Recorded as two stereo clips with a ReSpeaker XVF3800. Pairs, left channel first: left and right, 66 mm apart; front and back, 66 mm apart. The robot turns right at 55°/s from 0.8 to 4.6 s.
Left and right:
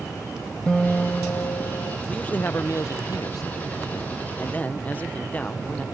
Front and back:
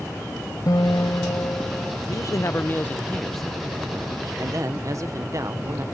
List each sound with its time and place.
0.7 s a guitar: 15° left; by 2.0 s 80° left
2.1 s a man speaking: 15° left; by 5.8 s 155° left